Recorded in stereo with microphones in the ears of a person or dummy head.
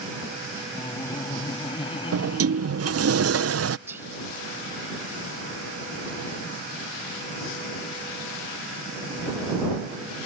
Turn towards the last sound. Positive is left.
turn(degrees=-5)  # may be behind; listen again after turning